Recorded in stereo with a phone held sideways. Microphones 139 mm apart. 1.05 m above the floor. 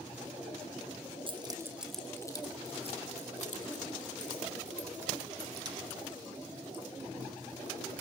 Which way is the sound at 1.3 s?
40° right (ahead or behind).